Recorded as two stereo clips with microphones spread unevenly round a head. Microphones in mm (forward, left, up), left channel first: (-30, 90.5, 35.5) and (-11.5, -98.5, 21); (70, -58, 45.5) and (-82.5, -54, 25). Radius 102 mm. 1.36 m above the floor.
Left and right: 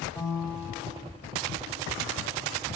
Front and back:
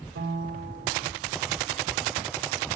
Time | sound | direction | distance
0.1 | a piano | 170° left | 0.8 m